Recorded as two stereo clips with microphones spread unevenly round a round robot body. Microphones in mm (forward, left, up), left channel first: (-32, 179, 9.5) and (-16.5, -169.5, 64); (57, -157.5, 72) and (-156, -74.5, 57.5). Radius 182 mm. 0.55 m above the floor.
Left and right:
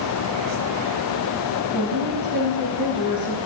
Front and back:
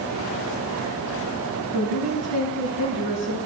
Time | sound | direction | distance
1.7 | a woman speaking | 5° right | 6.5 m